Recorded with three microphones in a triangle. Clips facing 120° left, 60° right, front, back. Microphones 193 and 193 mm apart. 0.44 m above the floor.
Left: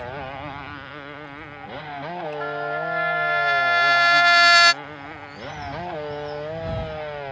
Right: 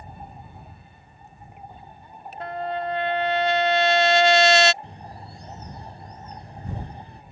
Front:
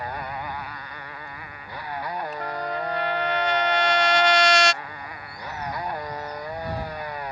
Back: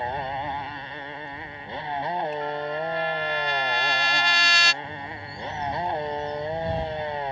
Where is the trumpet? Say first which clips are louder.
Right 3 dB, back 1 dB; straight ahead.